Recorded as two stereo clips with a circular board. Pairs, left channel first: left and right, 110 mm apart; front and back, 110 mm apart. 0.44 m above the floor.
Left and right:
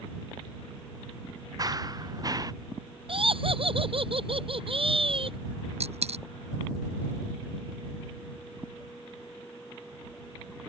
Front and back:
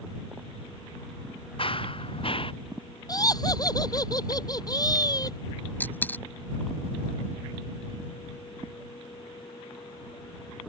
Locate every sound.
1.6 s running footsteps: 35° right
3.1 s laughter: 55° right
5.8 s a dropped coin: 75° right